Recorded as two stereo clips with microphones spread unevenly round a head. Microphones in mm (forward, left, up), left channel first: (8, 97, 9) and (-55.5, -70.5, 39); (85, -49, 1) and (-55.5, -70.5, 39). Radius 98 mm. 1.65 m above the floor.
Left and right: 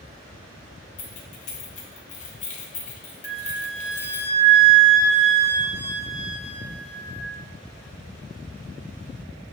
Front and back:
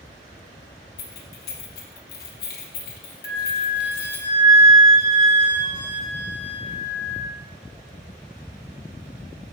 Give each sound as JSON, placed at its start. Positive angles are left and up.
{"t": 1.0, "sound": "keys jangling", "azimuth_deg": 15, "distance_m": 1.0}
{"t": 3.2, "sound": "a flute", "azimuth_deg": 170, "distance_m": 2.5}